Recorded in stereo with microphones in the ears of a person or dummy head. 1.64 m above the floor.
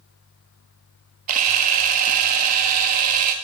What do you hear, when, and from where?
1.3 s a camera shutter: 45° right (ahead or behind), 0.6 m